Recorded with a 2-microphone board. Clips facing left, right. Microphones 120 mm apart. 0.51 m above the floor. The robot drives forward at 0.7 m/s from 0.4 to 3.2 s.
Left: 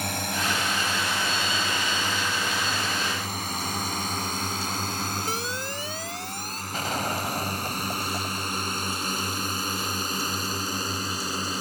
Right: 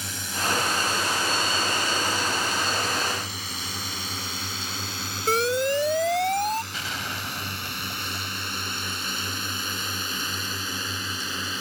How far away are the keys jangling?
No keys jangling in this recording.